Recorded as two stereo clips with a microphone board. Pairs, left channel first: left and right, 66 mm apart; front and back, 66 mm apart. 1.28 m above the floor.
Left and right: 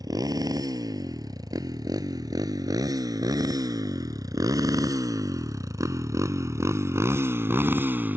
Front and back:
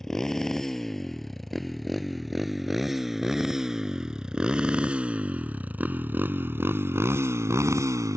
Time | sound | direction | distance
0.0 | a motorcycle | 85° right | ?